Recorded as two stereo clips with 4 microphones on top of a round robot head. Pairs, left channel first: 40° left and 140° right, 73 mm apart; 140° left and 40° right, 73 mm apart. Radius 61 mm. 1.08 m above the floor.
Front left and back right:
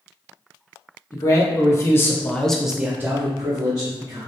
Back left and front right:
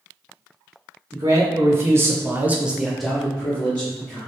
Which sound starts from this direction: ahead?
A man speaking, at 1.1 s.